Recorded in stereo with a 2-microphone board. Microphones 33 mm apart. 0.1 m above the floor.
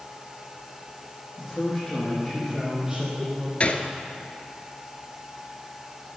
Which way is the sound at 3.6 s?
35° left (ahead or behind).